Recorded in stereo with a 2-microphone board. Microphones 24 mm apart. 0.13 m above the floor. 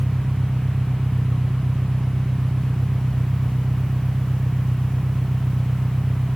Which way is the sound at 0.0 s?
65° right (ahead or behind).